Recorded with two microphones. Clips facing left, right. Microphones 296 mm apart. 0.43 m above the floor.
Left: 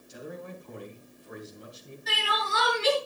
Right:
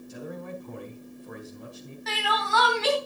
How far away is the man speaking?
About 3 m.